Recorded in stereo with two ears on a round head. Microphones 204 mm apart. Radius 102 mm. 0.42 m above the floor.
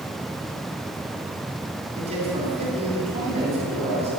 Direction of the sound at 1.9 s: 30° right (ahead or behind).